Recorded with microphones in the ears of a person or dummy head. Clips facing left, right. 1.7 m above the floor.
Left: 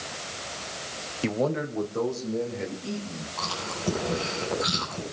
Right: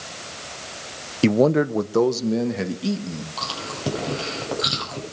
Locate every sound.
1.2 s a man speaking: 45° right (ahead or behind), 0.8 m; by 3.3 s 85° right, 3 m
3.4 s chewing: 55° right (ahead or behind), 9 m